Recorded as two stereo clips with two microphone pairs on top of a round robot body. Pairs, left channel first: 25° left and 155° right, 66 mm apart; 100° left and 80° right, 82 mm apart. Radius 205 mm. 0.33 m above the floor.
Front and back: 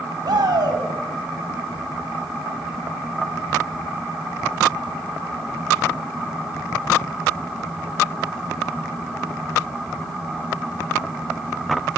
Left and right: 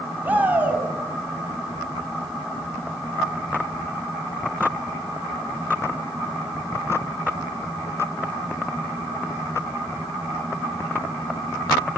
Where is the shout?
145° right, 5 m.